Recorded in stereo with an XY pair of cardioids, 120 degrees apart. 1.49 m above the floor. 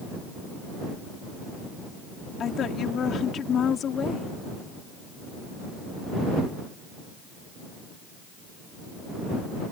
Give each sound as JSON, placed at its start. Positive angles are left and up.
{"t": 2.4, "sound": "a woman speaking", "azimuth_deg": 50}